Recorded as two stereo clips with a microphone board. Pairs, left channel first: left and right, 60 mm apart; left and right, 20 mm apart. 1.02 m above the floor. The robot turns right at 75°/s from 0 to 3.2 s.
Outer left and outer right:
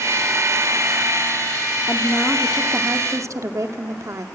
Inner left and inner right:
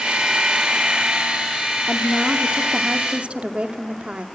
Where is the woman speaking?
140° left, 2.5 m; by 4.3 s 120° right, 2.5 m.